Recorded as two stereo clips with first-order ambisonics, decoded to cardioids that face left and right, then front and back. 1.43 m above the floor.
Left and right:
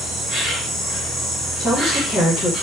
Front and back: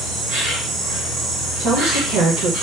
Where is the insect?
170° right, 1.9 m.